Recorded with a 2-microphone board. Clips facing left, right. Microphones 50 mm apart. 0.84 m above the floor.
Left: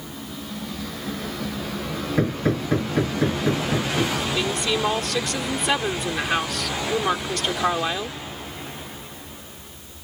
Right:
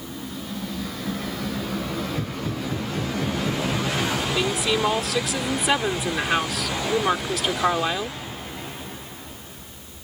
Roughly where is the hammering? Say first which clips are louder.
Left 6 dB; left.